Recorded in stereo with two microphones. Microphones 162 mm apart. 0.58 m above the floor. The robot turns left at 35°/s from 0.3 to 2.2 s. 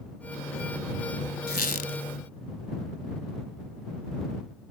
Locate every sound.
1.5 s a squeak: 75° left (ahead or behind); by 2.0 s 55° left (ahead or behind)